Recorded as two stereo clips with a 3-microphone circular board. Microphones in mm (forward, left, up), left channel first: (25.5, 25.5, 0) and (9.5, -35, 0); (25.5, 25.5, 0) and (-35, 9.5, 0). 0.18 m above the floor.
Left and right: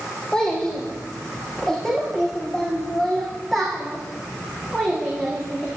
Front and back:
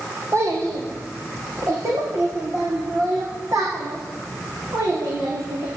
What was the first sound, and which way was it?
A child speaking, 155° left.